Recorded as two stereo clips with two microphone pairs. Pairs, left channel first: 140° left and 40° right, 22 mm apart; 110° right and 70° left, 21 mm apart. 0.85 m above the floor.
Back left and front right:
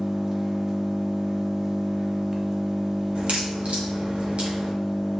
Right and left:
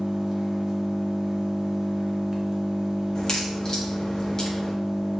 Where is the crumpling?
I don't hear crumpling.